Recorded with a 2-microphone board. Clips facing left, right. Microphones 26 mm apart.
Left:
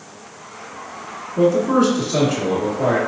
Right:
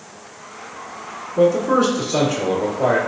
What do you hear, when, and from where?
1.4 s a man speaking: 5° right (ahead or behind), 1.5 m